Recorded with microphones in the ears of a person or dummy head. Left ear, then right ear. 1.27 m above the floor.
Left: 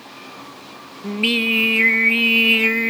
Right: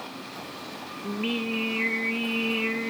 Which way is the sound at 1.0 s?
60° left (ahead or behind).